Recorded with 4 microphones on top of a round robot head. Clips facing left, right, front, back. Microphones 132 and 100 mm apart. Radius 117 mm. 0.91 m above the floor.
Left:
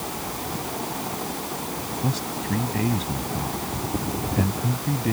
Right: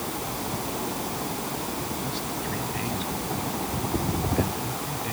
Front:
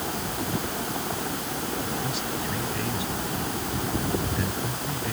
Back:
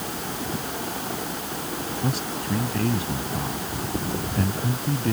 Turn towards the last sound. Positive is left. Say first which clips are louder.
# left 3 dB, back 2 dB
turn(degrees=135)